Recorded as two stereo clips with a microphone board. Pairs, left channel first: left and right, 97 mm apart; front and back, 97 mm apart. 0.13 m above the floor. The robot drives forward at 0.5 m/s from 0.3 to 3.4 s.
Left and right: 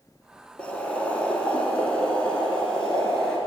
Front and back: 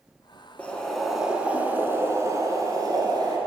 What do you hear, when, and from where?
0.6 s boiling: 40° left, 1.0 m; by 3.4 s 170° left, 1.5 m